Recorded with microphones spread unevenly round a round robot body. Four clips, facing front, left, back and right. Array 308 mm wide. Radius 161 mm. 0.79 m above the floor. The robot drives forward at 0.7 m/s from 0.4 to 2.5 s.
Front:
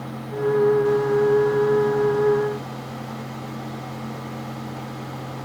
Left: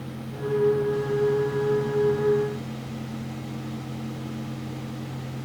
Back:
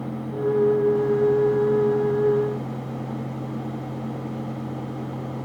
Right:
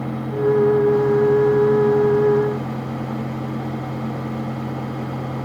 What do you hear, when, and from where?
Only background noise.